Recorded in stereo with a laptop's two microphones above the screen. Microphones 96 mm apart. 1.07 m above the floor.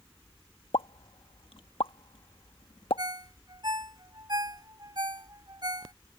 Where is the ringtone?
55° right (ahead or behind).